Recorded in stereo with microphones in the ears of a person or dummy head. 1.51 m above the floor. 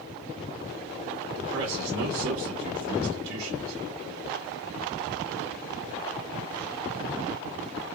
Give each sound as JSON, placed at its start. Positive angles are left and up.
{"t": 1.4, "sound": "a man speaking", "side_deg": -65, "distance_m": 1.2}